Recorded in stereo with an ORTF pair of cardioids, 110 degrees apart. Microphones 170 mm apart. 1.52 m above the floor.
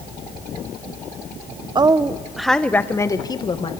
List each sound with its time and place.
1.8 s a woman speaking: 25° right, 1.1 m; by 3.7 s 30° left, 1.9 m